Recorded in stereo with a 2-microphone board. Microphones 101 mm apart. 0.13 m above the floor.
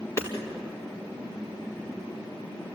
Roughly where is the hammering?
Left.